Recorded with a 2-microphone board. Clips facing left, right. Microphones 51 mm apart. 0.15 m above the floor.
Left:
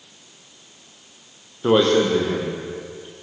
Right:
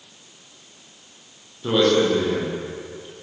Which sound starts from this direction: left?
A man speaking, at 1.6 s.